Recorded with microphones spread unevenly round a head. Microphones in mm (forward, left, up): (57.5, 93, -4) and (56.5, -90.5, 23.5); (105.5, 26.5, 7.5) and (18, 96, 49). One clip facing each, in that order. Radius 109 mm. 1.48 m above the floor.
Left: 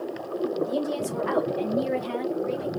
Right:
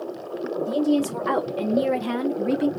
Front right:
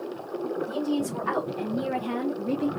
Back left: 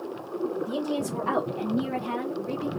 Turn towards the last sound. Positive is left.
turn(degrees=-95)